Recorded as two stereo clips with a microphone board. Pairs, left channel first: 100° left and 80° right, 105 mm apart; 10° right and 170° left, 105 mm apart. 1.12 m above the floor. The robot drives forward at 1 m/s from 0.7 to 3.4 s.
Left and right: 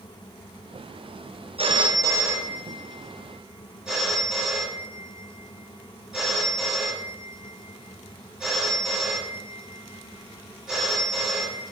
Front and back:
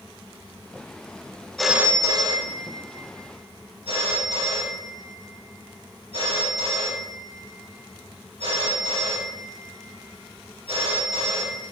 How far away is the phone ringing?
About 0.6 m.